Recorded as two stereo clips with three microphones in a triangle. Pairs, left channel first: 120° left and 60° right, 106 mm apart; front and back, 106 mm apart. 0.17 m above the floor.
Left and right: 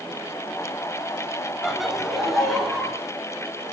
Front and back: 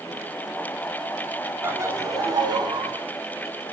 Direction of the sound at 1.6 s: 145° right.